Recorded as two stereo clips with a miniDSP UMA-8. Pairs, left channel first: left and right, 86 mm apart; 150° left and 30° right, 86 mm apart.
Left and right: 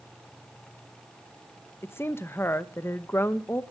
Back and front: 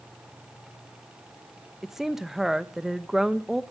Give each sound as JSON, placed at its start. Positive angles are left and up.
{"t": 1.8, "sound": "a woman speaking", "azimuth_deg": 50, "distance_m": 0.9}